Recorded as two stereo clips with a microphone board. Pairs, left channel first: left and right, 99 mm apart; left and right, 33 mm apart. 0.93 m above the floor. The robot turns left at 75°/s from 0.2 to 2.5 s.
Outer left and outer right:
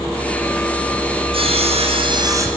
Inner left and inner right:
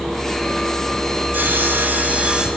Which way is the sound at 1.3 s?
65° right.